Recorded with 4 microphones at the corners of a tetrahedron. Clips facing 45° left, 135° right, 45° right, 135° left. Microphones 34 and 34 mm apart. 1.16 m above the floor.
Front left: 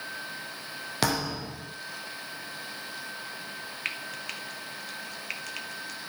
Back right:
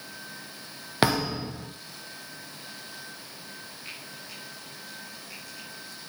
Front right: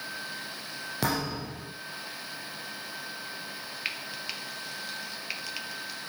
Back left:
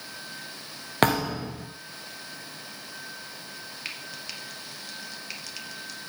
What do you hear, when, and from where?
1.0 s a thud: 160° left, 3 m
3.9 s frying: 25° left, 1.6 m